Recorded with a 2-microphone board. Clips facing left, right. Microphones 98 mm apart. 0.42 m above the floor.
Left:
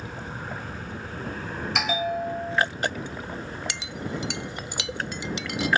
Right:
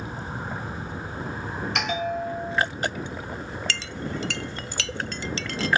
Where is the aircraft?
20° right (ahead or behind); by 5.8 s 10° right (ahead or behind).